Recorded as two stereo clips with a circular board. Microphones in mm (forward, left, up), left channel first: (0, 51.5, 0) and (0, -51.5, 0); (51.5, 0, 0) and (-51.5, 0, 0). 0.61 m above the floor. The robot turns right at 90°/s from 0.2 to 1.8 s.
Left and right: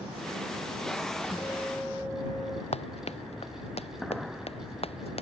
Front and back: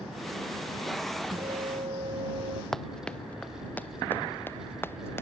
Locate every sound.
1.3 s a guitar: 140° left; by 2.6 s straight behind
2.7 s running footsteps: 85° left; by 5.2 s 70° left